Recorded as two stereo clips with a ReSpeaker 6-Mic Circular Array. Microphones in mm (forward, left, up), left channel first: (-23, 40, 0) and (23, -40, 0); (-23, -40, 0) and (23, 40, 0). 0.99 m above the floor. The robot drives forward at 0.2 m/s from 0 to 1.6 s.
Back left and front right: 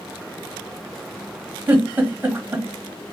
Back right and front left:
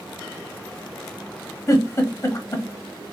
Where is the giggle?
110° right, 0.9 m.